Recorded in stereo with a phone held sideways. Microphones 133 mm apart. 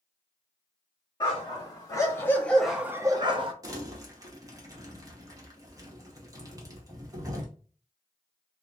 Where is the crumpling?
25° right (ahead or behind), 0.8 m.